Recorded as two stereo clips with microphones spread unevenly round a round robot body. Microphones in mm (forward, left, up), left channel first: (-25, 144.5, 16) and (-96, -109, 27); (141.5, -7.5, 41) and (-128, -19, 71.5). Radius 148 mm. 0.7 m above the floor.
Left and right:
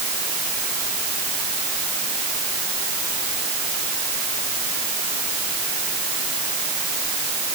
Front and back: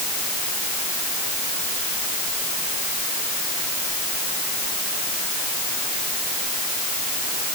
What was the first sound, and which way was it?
Only background noise.